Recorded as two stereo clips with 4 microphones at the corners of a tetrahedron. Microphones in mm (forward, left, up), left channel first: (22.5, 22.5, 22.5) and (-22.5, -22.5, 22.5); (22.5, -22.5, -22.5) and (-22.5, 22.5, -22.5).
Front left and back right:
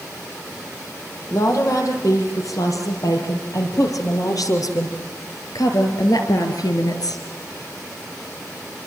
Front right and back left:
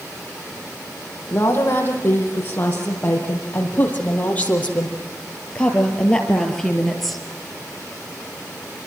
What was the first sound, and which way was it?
A woman speaking, 10° left.